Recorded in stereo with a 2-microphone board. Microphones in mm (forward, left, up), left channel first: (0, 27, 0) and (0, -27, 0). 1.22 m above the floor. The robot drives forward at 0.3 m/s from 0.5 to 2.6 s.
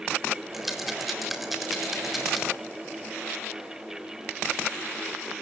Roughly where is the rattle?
Centre.